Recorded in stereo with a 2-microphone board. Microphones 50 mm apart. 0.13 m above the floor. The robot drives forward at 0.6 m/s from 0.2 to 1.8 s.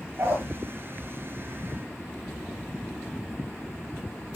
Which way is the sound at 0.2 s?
50° right (ahead or behind).